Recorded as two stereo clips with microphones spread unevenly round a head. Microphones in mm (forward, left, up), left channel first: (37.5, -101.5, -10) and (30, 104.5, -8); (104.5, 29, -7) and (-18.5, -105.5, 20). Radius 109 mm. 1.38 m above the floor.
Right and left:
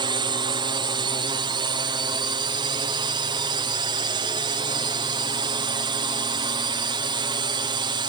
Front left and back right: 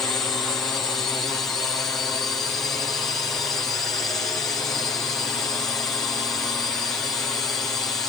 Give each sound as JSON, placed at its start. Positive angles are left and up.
{"t": 0.0, "sound": "a drone", "azimuth_deg": 110}